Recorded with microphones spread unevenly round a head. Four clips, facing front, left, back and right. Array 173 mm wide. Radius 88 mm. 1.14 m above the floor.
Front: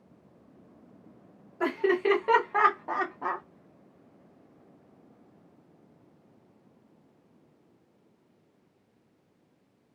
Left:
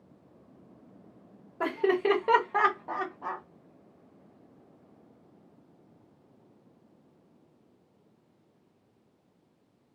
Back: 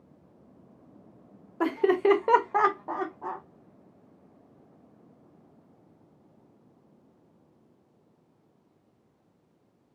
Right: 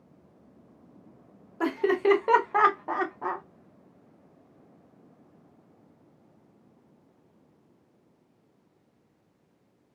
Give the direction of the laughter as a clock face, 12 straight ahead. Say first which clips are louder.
Right 2 dB, back 3 dB; 6 o'clock.